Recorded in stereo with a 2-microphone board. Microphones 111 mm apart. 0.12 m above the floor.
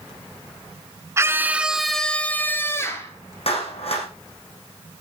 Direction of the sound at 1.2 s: 25° right (ahead or behind).